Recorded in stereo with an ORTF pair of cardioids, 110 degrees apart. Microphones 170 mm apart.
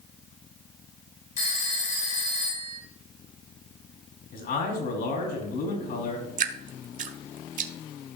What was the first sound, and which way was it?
A phone ringing, 50° left.